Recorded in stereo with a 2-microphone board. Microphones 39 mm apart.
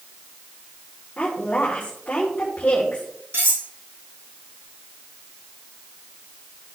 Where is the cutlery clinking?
85° right, 4 m.